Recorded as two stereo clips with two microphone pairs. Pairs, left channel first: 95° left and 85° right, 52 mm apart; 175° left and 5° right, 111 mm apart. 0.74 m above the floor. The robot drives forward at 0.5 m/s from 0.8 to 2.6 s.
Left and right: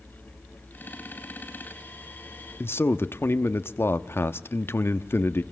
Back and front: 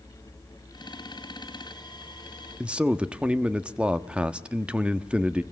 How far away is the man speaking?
About 1.0 m.